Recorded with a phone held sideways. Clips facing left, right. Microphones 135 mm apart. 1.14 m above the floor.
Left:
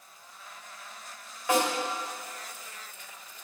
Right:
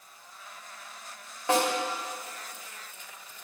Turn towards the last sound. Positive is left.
turn(degrees=-30)  # may be behind; listen again after turning